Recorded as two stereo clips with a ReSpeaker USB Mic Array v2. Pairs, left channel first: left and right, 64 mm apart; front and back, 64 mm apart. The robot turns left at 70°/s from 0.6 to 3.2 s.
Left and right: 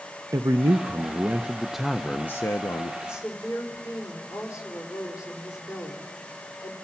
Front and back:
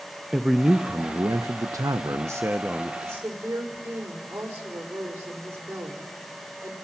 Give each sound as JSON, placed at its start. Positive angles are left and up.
{"t": 0.3, "sound": "a man speaking", "azimuth_deg": -95, "distance_m": 0.7}
{"t": 3.0, "sound": "a woman speaking", "azimuth_deg": 135, "distance_m": 4.5}